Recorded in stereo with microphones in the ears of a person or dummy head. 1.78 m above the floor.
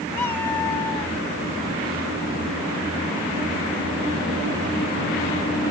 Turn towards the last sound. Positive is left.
turn(degrees=15)  # may be behind; listen again after turning